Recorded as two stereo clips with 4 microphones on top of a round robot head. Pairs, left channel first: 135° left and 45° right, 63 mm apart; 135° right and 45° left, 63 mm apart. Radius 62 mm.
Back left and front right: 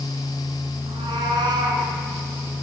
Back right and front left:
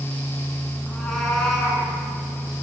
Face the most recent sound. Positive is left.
turn(degrees=-50)